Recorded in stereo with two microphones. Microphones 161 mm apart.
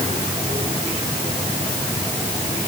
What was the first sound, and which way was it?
Only background noise.